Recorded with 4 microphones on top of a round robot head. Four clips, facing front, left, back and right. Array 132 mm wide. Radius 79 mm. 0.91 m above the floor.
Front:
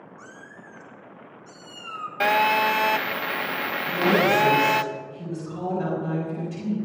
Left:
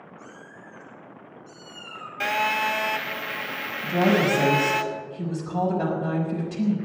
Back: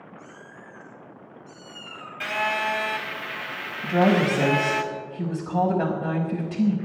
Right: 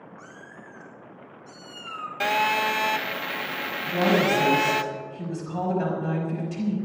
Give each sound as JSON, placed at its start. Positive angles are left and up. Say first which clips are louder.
{"t": 0.2, "sound": "a cat meowing", "louder": "even, even", "azimuth_deg": -40, "distance_m": 6.0}
{"t": 2.2, "sound": "a phone buzzing", "louder": "right 1 dB, front 6 dB", "azimuth_deg": -15, "distance_m": 0.6}
{"t": 3.8, "sound": "a woman speaking", "louder": "left 1 dB, back 1 dB", "azimuth_deg": 160, "distance_m": 6.0}